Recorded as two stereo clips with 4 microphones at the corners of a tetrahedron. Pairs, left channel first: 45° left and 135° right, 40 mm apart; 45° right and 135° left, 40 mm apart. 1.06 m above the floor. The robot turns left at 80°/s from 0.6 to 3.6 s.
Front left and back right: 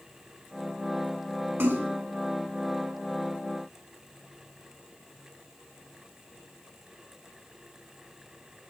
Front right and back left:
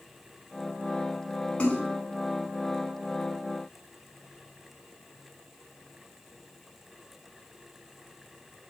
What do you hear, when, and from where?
1.6 s a splash: 105° right, 6 m; by 1.9 s 130° right, 6 m